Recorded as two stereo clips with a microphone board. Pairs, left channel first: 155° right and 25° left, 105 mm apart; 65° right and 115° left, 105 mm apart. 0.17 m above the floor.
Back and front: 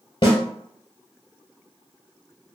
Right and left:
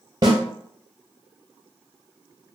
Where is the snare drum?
165° left, 1.6 m.